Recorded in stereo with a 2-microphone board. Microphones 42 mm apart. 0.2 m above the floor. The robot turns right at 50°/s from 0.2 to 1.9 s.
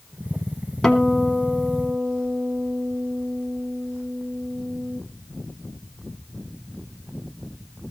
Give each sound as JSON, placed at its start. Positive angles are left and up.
{"t": 0.8, "sound": "a guitar", "azimuth_deg": 165, "distance_m": 1.7}